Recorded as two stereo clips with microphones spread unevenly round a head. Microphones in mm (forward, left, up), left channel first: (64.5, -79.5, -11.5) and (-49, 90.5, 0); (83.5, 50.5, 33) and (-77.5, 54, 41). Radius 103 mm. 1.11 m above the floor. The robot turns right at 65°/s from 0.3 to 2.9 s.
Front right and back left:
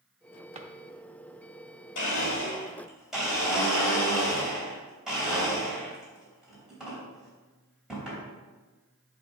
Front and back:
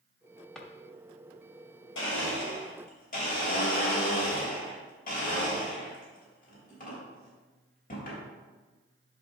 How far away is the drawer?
About 0.8 m.